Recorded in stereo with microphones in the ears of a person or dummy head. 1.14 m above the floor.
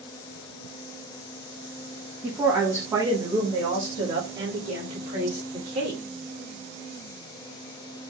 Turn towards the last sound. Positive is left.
turn(degrees=-30)  # may be behind; listen again after turning